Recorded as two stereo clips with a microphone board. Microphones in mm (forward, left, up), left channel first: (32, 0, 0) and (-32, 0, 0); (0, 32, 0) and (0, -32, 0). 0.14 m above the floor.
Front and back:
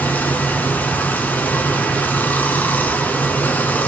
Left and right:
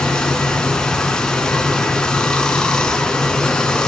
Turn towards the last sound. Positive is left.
turn(degrees=25)